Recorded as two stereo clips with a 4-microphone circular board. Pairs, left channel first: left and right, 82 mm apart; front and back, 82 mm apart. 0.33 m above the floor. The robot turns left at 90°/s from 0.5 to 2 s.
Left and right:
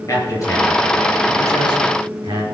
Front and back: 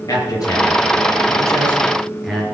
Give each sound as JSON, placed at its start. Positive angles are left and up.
{"t": 0.1, "sound": "a man speaking", "azimuth_deg": 40, "distance_m": 5.5}